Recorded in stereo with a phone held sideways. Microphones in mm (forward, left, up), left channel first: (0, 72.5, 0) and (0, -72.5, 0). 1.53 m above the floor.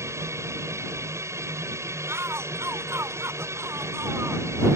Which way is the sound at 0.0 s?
20° right (ahead or behind).